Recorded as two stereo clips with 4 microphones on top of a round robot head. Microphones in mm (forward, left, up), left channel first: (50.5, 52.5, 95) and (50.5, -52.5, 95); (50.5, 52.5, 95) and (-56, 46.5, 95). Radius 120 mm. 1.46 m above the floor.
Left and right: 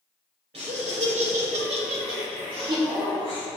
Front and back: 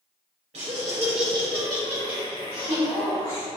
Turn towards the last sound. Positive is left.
turn(degrees=-45)